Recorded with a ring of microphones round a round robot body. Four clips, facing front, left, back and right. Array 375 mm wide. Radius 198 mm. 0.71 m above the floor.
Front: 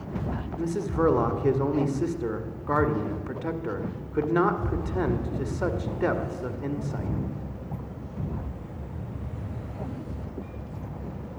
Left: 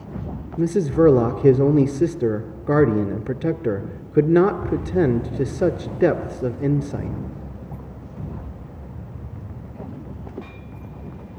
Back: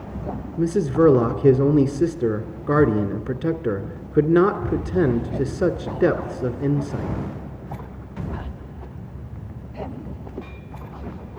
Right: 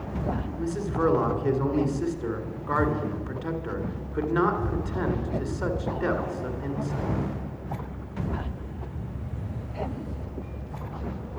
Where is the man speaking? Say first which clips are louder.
Left 12 dB, back 8 dB; 130° left, 2.0 m.